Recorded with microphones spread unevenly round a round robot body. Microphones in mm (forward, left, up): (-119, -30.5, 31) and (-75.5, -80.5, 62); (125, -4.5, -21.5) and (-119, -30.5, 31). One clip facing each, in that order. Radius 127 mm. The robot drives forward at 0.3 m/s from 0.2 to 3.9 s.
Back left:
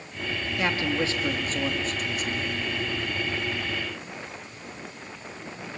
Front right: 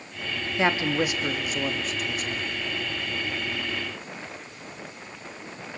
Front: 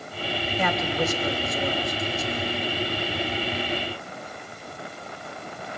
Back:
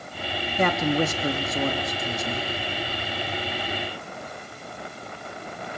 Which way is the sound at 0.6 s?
135° right.